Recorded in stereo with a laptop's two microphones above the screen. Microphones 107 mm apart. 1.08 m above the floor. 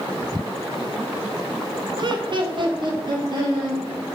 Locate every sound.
2.0 s laughter: 45° right (ahead or behind), 1.0 m